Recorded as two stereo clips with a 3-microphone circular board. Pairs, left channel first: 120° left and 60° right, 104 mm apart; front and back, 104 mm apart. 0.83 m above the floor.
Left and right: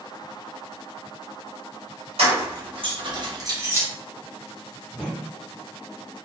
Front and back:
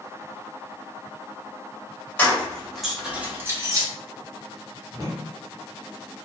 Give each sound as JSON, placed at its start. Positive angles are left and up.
{"t": 2.2, "sound": "keys jangling", "azimuth_deg": -75, "distance_m": 1.2}
{"t": 4.9, "sound": "a whoosh", "azimuth_deg": -135, "distance_m": 1.1}